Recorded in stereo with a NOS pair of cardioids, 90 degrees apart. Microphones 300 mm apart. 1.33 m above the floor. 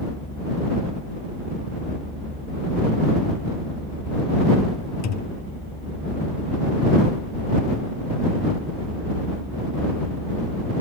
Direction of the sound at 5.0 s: 60° left.